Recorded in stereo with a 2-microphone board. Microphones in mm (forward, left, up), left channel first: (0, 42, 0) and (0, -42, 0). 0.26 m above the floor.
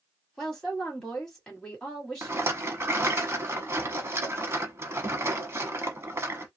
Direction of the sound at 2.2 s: 30° right (ahead or behind).